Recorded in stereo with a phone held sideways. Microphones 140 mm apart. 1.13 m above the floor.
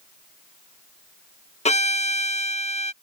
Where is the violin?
55° left (ahead or behind).